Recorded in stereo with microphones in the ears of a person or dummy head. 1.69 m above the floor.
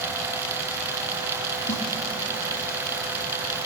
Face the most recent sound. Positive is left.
turn(degrees=55)  # may be behind; listen again after turning